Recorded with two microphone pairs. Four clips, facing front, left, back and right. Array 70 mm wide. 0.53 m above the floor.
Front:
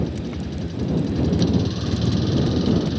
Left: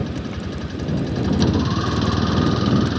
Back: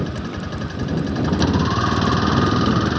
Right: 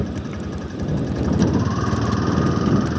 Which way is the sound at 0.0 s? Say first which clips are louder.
Even, back 1 dB; 175° right.